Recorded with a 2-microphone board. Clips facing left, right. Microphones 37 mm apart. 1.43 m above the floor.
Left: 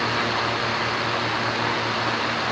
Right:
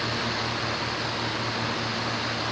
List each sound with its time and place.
Only background noise.